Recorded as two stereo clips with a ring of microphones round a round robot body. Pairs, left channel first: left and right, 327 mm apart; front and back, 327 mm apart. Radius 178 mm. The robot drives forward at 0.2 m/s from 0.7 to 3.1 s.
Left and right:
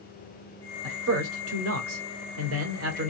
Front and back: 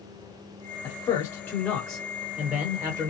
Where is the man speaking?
70° right, 1.2 m; by 3.1 s 105° right, 1.2 m.